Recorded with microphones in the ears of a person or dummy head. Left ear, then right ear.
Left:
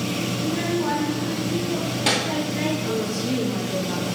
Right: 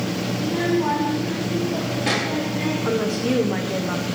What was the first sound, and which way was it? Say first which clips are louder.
A child speaking: right 5 dB; 25° right (ahead or behind).